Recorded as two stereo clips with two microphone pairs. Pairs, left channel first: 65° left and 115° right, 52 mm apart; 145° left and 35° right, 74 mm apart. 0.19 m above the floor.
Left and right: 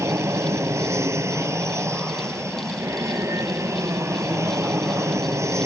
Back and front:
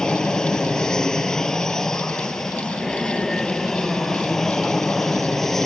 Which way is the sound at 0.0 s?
135° right.